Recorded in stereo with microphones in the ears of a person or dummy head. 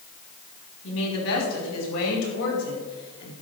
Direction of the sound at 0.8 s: 85° left.